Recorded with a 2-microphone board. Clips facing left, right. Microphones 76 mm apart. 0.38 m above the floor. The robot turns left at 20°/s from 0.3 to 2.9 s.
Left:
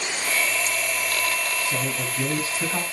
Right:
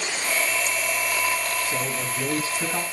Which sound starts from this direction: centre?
A man speaking, at 1.6 s.